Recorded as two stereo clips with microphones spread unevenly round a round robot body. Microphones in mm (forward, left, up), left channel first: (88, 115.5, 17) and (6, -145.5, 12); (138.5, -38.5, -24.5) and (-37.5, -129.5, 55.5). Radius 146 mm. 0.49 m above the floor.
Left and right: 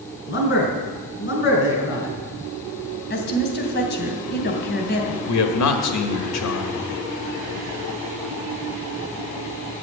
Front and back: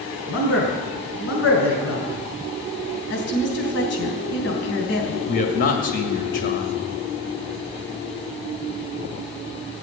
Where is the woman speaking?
20° left, 3 m.